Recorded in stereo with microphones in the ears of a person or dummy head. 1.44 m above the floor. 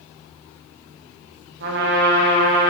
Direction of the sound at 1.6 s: 65° right (ahead or behind).